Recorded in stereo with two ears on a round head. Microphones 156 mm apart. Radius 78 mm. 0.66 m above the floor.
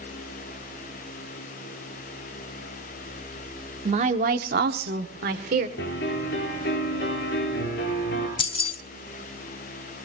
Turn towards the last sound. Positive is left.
turn(degrees=30)  # may be behind; listen again after turning